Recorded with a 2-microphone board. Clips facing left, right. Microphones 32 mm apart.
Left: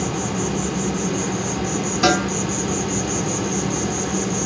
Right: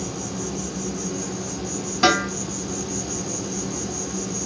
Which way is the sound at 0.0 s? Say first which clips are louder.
Left 6 dB; 65° left (ahead or behind).